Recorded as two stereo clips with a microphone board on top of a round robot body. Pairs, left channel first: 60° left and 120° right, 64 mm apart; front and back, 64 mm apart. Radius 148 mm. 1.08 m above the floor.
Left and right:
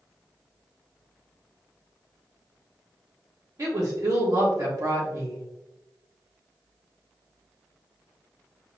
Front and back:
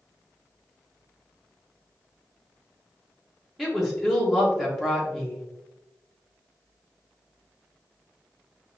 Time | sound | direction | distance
3.6 | a woman speaking | 90° right | 1.5 m